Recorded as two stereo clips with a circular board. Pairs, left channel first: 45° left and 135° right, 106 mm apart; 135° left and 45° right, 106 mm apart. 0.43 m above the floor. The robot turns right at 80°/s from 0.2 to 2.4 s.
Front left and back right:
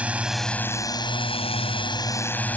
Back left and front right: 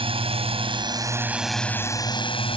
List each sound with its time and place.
0.0 s a drone: 60° right; by 2.6 s 115° left